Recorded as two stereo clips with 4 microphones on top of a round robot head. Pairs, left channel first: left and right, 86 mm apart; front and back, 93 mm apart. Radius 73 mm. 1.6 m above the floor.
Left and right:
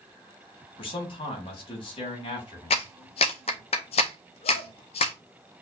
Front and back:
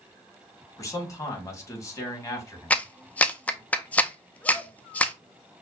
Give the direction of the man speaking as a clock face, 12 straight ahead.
10 o'clock.